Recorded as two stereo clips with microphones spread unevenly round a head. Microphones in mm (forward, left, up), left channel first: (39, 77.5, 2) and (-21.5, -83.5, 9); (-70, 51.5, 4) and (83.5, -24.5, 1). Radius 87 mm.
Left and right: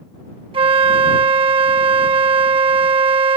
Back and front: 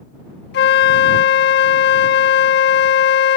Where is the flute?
175° right.